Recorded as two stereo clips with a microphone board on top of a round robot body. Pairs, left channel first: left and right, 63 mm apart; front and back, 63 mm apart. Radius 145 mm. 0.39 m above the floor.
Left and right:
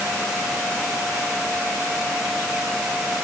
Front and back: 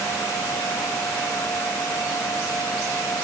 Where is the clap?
No clap in this recording.